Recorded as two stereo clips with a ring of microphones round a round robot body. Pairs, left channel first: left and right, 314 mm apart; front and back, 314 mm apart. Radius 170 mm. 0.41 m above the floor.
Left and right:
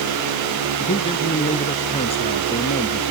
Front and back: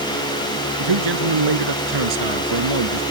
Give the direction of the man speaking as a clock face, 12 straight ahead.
7 o'clock.